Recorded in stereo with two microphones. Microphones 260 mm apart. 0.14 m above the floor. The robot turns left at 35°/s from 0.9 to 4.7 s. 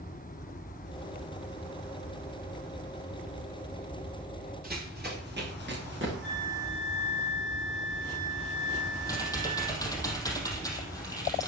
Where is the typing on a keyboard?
15° left (ahead or behind), 4.5 m.